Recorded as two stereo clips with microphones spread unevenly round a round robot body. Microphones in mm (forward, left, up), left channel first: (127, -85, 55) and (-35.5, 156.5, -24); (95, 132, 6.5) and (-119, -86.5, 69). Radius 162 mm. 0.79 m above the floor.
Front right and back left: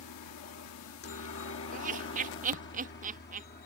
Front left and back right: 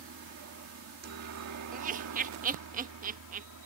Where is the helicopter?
90° right; by 3.7 s 120° right.